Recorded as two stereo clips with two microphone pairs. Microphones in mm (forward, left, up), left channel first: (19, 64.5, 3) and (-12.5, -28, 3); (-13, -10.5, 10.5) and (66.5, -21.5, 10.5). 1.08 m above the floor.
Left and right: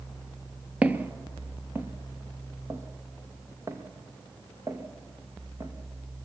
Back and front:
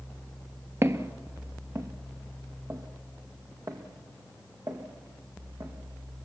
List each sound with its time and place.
0.8 s footsteps: 40° right, 1.3 m; by 5.7 s 50° right, 3.5 m